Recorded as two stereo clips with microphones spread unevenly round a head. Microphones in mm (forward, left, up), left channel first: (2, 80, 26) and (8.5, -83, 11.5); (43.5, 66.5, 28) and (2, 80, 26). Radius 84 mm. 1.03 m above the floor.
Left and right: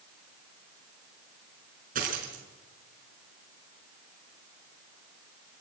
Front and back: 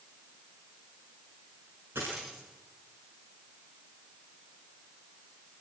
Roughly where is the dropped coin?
Behind right.